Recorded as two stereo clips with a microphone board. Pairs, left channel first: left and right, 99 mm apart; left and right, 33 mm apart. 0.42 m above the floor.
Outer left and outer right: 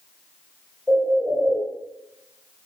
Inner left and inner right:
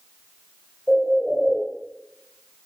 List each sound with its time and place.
0.9 s a bird: 10° right (ahead or behind), 2 m